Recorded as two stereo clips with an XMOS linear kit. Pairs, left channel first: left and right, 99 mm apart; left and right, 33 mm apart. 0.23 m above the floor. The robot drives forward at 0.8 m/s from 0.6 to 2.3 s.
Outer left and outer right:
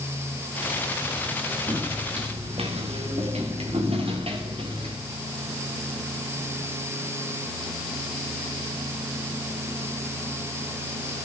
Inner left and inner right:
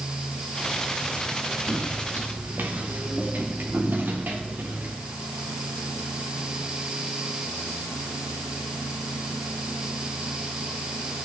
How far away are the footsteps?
About 4 m.